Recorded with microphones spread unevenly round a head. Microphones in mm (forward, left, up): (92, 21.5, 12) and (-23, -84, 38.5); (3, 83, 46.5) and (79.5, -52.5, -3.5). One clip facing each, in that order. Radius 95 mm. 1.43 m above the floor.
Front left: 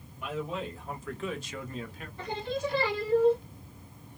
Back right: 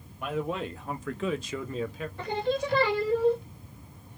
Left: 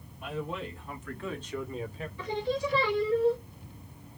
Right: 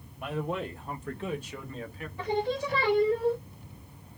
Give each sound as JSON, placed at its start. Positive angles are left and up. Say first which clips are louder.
{"t": 0.2, "sound": "a man speaking", "louder": "back right 4 dB, right 3 dB", "azimuth_deg": -100, "distance_m": 1.4}
{"t": 2.2, "sound": "singing", "louder": "back right 4 dB, right 2 dB", "azimuth_deg": -110, "distance_m": 1.5}